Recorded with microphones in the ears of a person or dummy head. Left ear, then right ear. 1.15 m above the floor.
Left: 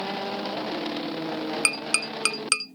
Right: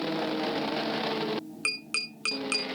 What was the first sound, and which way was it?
Tapping, 30° left (ahead or behind).